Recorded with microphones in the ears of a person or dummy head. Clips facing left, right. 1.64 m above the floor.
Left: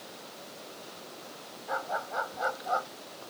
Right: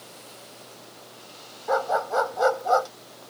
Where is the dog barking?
65° right (ahead or behind).